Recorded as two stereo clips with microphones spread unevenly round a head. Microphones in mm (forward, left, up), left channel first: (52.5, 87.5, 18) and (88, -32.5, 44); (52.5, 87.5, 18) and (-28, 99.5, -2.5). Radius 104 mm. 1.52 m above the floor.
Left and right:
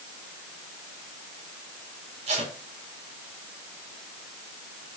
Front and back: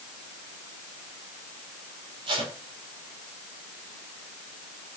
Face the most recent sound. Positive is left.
turn(degrees=-135)